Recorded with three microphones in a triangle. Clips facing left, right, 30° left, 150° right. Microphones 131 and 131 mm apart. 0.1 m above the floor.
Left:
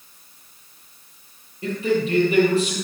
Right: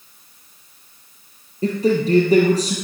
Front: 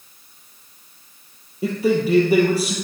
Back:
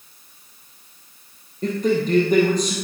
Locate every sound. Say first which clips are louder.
1.6 s a man speaking: right 4 dB, front 1 dB; 50° right, 2.5 m